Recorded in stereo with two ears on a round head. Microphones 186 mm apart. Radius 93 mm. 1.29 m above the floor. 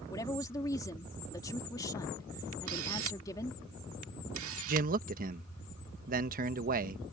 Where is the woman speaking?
15° left (ahead or behind).